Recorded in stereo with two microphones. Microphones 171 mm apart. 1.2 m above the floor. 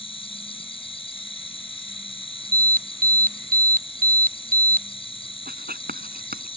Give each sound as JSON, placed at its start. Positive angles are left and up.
{"t": 0.0, "sound": "an insect", "side_deg": 30}
{"t": 2.5, "sound": "an alarm", "side_deg": -55}
{"t": 5.5, "sound": "writing", "side_deg": -55}